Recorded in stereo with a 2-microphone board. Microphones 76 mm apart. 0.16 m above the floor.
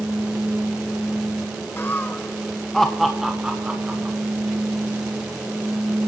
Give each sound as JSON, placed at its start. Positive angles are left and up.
{"t": 1.8, "sound": "laughter", "side_deg": 30, "distance_m": 1.2}